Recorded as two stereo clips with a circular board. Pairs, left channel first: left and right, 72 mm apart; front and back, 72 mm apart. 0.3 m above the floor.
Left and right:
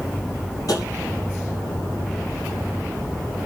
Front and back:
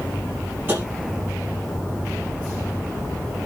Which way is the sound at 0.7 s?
120° left.